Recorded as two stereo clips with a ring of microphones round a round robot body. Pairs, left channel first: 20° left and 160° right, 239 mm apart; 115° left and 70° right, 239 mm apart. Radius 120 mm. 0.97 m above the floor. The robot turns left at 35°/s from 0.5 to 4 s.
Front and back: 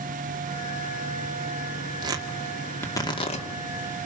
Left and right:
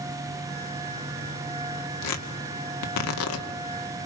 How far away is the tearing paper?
About 2 m.